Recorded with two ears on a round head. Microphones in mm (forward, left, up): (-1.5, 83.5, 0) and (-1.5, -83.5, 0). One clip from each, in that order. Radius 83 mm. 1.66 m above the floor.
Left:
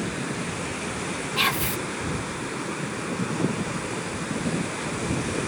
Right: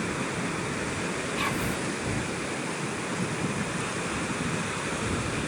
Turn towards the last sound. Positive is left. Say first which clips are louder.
# left 8 dB
turn(degrees=75)  # may be behind; listen again after turning